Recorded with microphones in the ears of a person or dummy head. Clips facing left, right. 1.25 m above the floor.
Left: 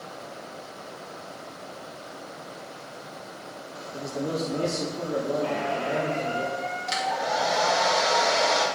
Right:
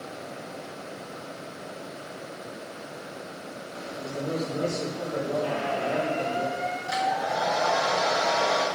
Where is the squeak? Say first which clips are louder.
Even; centre (ahead or behind), 2.5 m.